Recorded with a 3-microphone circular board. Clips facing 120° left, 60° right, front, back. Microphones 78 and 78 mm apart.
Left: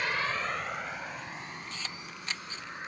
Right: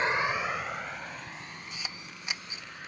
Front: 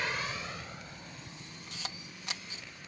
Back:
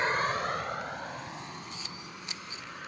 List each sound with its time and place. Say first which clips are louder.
0.0 s a vehicle: right 3 dB, back 7 dB; 125° right; by 2.9 s 175° right
1.7 s a camera shutter: left 1 dB, back 2 dB; 15° left